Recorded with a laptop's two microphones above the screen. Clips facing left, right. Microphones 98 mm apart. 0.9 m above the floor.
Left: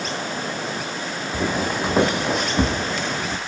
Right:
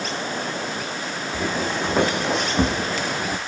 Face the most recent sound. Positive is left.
turn(degrees=-10)  # may be behind; listen again after turning